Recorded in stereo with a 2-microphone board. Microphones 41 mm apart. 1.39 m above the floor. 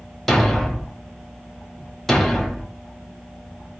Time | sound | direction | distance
0.3 | a thud | 5° left (ahead or behind) | 0.9 m